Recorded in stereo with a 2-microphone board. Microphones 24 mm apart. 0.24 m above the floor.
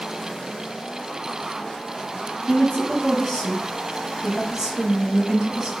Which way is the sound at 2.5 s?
35° left (ahead or behind).